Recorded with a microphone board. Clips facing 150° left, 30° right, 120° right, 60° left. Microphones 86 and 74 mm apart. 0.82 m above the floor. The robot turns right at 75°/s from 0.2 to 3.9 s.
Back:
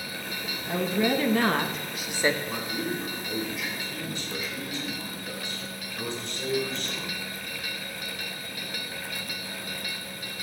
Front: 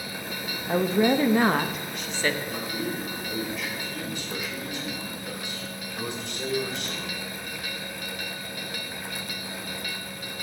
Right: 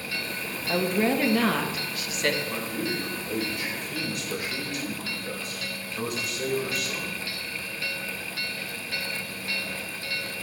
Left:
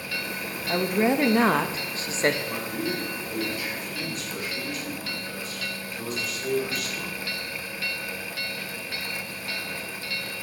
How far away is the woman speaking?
About 0.6 m.